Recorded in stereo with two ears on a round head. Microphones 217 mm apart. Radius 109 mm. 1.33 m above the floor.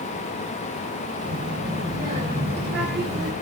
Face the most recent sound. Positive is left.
turn(degrees=-45)  # may be behind; listen again after turning